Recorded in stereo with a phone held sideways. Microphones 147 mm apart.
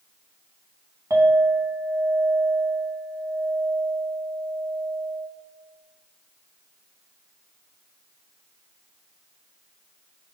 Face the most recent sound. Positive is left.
turn(degrees=-20)  # may be behind; listen again after turning